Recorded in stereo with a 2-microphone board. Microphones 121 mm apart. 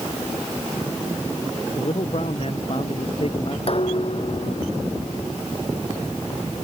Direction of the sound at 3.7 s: 50° left (ahead or behind).